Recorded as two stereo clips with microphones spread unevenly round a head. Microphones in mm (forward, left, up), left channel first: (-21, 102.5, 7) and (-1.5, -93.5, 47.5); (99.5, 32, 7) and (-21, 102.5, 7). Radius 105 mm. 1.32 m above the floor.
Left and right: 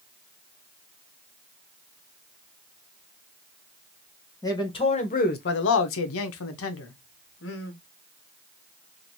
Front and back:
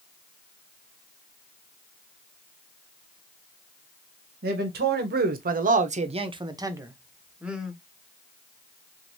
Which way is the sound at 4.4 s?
170° left.